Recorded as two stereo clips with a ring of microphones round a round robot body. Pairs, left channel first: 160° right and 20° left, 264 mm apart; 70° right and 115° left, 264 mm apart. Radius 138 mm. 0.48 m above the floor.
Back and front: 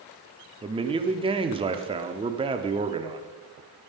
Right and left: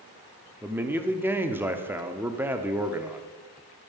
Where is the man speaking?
45° left, 0.8 m.